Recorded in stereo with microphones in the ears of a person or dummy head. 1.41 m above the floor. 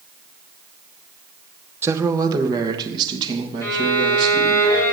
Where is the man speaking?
15° right (ahead or behind), 0.5 m; by 4.6 s 30° right (ahead or behind), 1.9 m.